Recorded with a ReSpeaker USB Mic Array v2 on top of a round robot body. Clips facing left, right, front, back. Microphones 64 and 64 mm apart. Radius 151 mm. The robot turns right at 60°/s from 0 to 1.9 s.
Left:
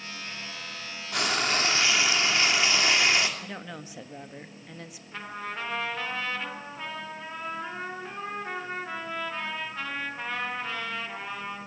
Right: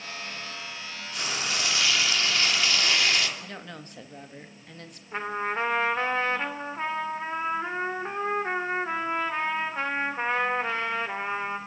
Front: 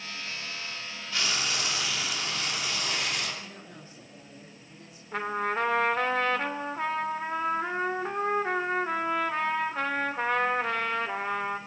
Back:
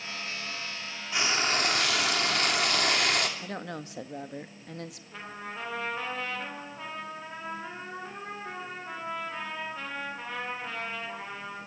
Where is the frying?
110° left, 3 m; by 3.3 s 155° left, 3 m.